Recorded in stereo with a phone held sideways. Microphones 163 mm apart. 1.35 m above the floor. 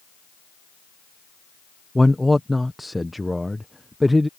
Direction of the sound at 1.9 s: Centre (ahead or behind).